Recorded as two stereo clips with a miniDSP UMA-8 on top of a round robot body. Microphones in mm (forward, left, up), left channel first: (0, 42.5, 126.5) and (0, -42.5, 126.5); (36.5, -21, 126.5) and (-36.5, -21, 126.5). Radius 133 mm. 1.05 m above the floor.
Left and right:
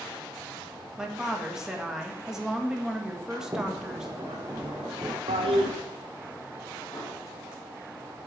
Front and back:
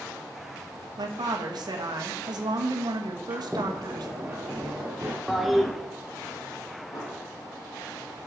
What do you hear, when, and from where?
1.0 s a woman speaking: 175° right, 1.3 m
3.3 s a sliding door: 125° right, 0.6 m
5.3 s a toilet flushing: 90° right, 0.8 m
6.9 s an explosion: 30° left, 4 m